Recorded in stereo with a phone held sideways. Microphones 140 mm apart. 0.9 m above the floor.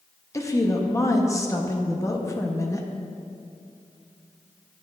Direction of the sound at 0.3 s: 20° left (ahead or behind).